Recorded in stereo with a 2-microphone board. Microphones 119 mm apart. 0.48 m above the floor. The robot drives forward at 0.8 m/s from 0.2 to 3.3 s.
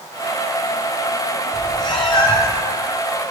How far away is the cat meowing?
About 1.7 m.